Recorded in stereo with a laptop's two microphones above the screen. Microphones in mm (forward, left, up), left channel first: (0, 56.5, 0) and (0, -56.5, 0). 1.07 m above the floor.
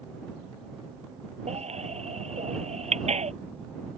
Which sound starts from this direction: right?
A baby crying, at 1.5 s.